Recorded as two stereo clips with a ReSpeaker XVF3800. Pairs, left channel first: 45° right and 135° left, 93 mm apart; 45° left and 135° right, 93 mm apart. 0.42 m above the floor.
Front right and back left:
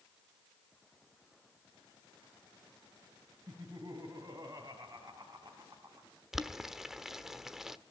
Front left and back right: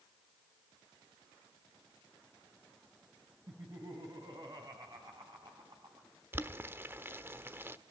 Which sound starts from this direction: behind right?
Boiling, at 6.3 s.